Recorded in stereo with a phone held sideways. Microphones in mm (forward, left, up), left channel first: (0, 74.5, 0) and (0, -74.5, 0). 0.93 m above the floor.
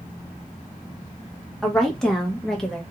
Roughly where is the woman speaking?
Centre.